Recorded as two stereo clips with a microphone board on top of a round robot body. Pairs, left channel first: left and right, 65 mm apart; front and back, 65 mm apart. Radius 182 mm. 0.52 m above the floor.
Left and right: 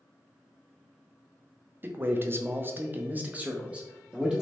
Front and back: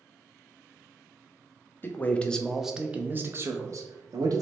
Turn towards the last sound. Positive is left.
turn(degrees=-165)